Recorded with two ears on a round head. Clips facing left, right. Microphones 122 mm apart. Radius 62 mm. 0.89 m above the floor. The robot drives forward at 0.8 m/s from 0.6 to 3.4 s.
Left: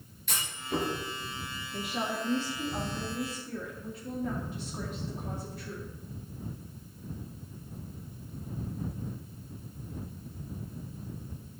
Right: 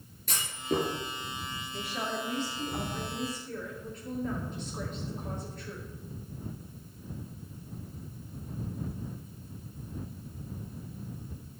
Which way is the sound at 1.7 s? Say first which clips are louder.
Left 2 dB; 15° left (ahead or behind).